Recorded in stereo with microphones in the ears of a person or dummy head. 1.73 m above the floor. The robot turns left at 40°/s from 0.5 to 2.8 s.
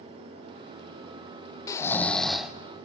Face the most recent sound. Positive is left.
turn(degrees=-15)